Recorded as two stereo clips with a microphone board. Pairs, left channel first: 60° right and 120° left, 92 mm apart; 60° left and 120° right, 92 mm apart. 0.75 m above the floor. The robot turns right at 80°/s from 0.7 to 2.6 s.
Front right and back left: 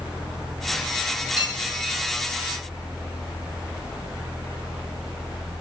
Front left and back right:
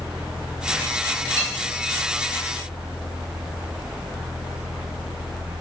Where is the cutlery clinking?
65° right, 1.7 m; by 1.7 s 35° right, 1.7 m.